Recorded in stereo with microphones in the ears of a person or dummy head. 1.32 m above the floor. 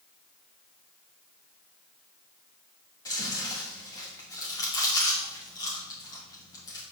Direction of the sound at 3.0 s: 20° left (ahead or behind).